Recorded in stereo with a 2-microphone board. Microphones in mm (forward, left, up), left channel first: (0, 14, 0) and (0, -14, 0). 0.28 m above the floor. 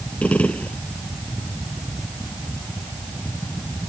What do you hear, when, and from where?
0.2 s a gunshot: 55° left (ahead or behind)